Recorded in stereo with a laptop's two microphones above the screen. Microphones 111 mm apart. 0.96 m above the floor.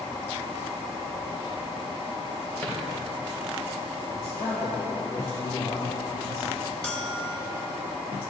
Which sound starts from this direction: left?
A man speaking, at 4.1 s.